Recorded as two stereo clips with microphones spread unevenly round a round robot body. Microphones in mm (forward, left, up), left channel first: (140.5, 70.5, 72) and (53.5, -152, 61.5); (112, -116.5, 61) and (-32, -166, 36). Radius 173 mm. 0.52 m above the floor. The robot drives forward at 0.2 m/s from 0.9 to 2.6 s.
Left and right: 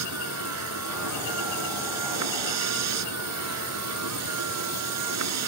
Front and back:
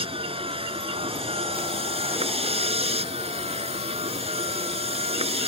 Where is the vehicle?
105° right; by 5.5 s 110° right.